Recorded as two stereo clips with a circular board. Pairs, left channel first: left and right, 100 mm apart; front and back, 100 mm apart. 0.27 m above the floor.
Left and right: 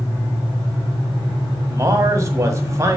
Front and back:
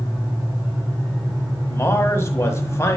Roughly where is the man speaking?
Ahead right.